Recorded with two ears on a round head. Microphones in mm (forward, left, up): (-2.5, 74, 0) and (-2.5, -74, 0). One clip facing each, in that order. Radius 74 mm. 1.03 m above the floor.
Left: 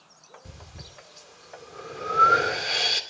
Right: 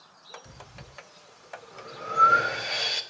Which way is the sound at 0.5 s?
60° left (ahead or behind).